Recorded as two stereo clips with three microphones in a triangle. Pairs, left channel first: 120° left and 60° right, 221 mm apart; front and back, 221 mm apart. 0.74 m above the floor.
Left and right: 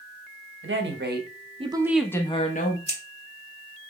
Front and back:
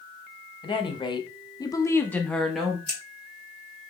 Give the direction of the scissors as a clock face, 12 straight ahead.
10 o'clock.